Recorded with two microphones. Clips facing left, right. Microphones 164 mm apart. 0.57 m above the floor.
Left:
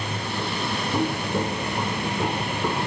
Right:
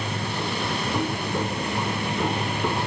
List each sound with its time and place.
0.9 s footsteps: 15° left (ahead or behind); by 2.9 s centre (ahead or behind)